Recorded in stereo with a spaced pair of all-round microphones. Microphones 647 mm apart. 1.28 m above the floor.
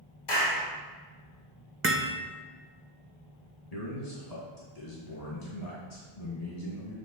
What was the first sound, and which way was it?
A clap, 35° left (ahead or behind).